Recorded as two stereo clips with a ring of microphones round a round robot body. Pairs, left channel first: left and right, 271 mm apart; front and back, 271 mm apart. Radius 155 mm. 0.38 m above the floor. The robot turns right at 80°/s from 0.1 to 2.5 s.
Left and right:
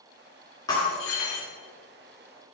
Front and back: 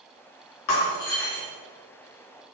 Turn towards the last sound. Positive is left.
turn(degrees=155)